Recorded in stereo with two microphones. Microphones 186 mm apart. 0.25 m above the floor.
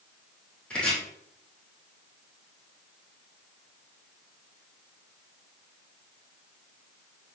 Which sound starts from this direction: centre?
Chopping, at 0.7 s.